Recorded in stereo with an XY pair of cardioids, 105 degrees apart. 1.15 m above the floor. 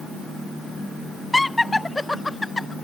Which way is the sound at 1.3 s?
15° left.